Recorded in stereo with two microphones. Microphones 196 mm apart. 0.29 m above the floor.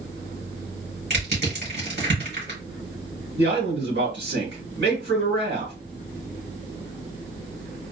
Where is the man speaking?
65° right (ahead or behind), 2.5 m.